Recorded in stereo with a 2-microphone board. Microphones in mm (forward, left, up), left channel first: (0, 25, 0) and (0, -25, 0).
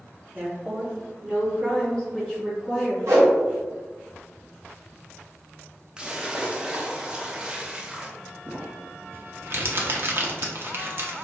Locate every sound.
0.3 s a woman speaking: 40° right (ahead or behind), 1.0 m; by 3.0 s 5° right (ahead or behind), 2.5 m
3.1 s a whoosh: 65° right (ahead or behind), 1.2 m
6.0 s a splash: 15° right (ahead or behind), 0.5 m
8.5 s crumpling: 45° right (ahead or behind), 0.6 m